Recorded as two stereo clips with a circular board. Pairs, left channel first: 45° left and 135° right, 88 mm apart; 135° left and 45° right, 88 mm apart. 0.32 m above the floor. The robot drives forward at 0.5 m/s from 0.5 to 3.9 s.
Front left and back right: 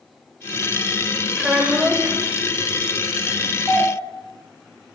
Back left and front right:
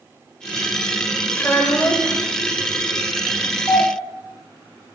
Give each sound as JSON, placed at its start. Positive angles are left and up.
{"t": 1.4, "sound": "a child speaking", "azimuth_deg": 155, "distance_m": 0.7}
{"t": 3.7, "sound": "a doorbell", "azimuth_deg": 125, "distance_m": 1.7}